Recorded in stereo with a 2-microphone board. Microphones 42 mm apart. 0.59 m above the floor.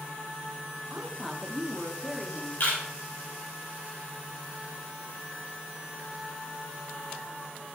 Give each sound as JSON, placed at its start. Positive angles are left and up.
{"t": 0.9, "sound": "a woman speaking", "side_deg": -5, "distance_m": 1.3}
{"t": 2.6, "sound": "a camera shutter", "side_deg": 60, "distance_m": 2.5}